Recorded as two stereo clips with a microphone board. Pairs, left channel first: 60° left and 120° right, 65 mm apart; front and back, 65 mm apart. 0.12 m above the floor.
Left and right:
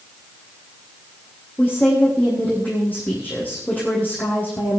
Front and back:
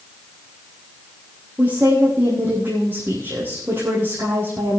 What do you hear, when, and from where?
1.6 s a woman speaking: 125° left, 4 m